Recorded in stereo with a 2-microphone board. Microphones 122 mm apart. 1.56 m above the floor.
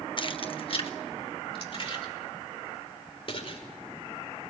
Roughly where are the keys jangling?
Left.